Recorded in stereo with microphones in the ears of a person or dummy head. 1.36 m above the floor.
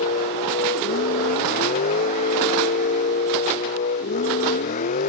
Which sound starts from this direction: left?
A vehicle, at 0.0 s.